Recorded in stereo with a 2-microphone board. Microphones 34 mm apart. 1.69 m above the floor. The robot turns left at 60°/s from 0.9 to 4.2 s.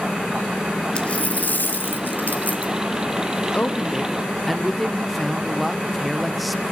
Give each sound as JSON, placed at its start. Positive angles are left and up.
{"t": 0.9, "sound": "a dropped coin", "azimuth_deg": 145, "distance_m": 2.5}
{"t": 3.5, "sound": "a woman speaking", "azimuth_deg": 45, "distance_m": 1.1}